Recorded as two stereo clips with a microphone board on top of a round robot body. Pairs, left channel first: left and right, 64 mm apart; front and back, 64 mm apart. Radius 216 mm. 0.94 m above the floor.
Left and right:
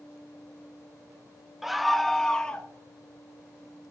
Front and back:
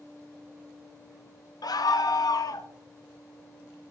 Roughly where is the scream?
Ahead.